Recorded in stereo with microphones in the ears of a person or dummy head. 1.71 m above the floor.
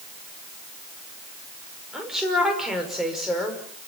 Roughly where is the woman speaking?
Centre.